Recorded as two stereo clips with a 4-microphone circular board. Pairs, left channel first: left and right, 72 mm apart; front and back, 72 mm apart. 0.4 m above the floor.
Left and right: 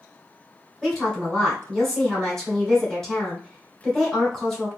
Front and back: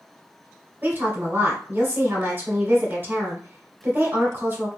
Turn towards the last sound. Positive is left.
turn(degrees=170)